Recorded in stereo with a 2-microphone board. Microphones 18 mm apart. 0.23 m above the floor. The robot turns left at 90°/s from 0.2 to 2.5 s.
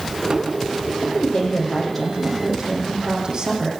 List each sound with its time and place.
1.0 s a woman speaking: 95° left, 9.5 m; by 3.7 s 40° right, 9.5 m